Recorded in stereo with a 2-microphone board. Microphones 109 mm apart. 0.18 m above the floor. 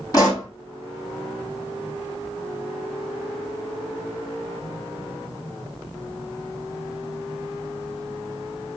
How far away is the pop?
About 4 m.